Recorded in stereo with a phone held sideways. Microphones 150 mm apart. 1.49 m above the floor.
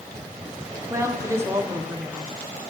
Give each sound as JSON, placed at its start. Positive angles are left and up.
{"t": 0.9, "sound": "a woman speaking", "side_deg": -20, "distance_m": 0.8}